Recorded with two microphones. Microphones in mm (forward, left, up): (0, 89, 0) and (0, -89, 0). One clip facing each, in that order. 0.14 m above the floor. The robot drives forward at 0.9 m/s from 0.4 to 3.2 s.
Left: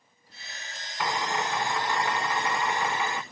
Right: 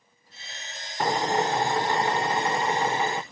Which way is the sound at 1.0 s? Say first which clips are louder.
Right 5 dB; 40° right (ahead or behind).